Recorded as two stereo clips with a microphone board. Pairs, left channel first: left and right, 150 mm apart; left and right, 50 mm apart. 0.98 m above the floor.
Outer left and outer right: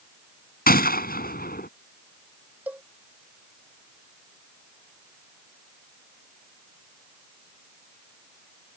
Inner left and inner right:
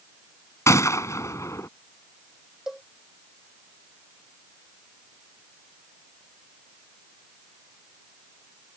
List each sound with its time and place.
0.7 s a gunshot: 80° left
2.7 s a cowbell: 10° right (ahead or behind)